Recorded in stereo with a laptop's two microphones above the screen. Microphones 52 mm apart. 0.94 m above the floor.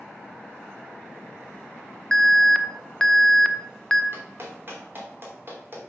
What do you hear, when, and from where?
2.1 s an alarm: 10° left (ahead or behind), 0.6 m
4.1 s a clap: 45° right (ahead or behind), 2.5 m